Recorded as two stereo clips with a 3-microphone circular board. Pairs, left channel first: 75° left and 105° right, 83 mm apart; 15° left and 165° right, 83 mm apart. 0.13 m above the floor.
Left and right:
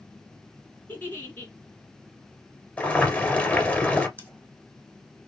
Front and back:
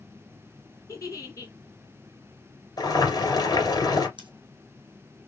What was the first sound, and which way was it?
A giggle, 25° left.